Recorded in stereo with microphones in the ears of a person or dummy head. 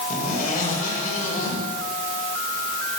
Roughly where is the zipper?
Left.